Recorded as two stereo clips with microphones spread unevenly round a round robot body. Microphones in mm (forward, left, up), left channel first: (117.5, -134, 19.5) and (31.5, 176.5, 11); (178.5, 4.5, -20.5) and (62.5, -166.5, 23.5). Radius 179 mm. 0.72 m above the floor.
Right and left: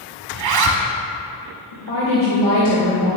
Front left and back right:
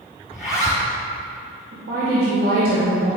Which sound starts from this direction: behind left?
A zipper, at 0.3 s.